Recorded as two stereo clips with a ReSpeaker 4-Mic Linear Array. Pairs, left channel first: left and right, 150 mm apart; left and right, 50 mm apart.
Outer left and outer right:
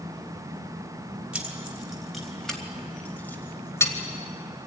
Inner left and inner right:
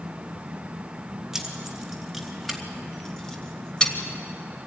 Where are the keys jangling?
5° right (ahead or behind), 3 m; by 3.9 s 20° left (ahead or behind), 2.5 m.